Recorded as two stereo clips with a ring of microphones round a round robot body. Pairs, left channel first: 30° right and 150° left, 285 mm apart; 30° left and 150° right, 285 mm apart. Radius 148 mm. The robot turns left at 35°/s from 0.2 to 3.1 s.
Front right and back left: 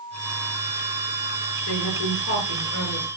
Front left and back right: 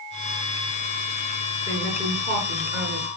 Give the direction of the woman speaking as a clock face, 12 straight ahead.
2 o'clock.